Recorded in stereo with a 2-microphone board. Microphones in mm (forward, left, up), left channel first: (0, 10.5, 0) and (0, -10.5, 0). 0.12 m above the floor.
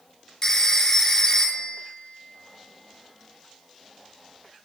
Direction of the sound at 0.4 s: 30° left (ahead or behind).